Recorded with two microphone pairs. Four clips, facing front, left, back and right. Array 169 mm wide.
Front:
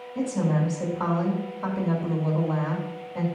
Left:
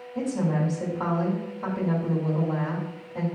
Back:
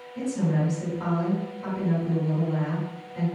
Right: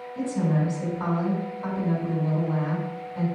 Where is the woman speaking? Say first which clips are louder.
Even, front 1 dB; 45° left, 3.5 m.